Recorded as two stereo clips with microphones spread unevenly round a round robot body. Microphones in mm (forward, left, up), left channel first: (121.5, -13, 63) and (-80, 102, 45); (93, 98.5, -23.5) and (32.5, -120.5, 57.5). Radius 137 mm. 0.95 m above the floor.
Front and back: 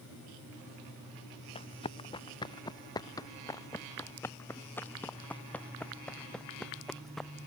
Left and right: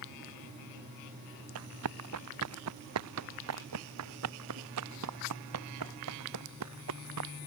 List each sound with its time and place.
1.6 s running footsteps: 100° right; by 7.3 s 120° right